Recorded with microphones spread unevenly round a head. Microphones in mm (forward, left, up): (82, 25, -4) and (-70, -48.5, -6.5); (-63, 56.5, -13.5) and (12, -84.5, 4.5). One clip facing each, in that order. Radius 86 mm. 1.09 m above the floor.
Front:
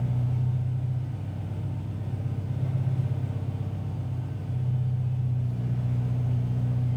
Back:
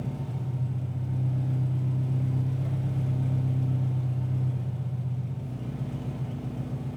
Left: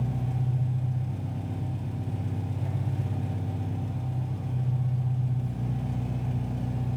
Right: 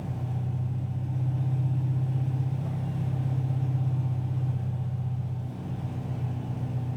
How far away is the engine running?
About 0.8 m.